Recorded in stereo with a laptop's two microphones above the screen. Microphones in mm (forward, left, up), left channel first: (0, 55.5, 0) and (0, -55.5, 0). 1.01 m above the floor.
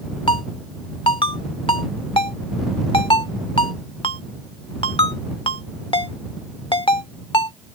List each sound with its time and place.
0.3 s a ringtone: 50° left (ahead or behind)